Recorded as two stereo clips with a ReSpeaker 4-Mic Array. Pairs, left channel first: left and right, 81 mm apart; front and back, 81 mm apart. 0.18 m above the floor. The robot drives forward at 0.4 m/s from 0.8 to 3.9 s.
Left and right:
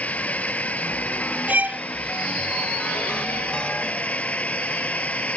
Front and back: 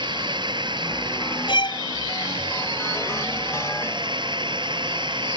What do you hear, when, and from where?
0.0 s a drone: 165° left
1.5 s a violin: 15° right; by 1.8 s 20° right